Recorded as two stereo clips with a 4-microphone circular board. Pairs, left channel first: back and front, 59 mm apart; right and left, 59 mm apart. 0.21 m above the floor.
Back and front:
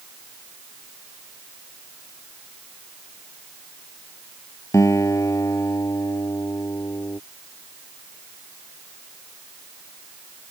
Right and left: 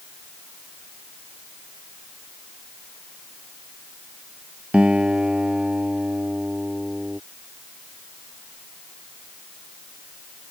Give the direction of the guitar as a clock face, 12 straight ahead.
7 o'clock.